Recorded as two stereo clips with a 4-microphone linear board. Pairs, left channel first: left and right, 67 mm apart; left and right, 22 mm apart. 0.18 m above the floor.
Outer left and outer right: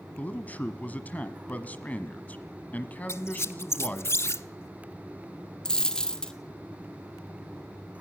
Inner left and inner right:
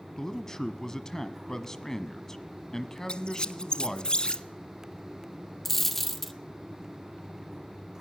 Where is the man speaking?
25° left (ahead or behind), 1.1 m.